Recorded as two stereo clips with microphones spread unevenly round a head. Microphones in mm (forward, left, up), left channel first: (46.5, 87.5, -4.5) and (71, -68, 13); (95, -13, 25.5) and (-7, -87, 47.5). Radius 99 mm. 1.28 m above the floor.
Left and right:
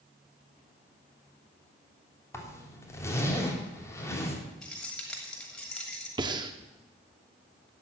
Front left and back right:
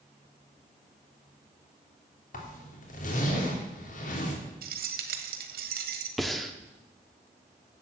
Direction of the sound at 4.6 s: 175° right.